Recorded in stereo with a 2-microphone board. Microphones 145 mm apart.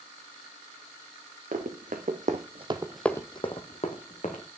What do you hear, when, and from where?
1.5 s running footsteps: 75° right (ahead or behind), 1.7 m; by 4.5 s 60° left (ahead or behind), 1.8 m